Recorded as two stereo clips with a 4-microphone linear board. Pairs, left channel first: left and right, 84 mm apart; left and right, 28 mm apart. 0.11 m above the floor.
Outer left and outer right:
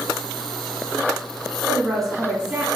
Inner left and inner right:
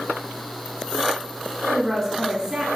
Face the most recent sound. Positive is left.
turn(degrees=-20)  # may be behind; listen again after turning